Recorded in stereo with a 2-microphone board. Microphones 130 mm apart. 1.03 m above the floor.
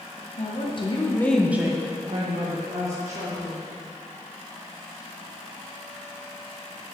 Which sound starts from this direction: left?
A woman speaking, at 0.4 s.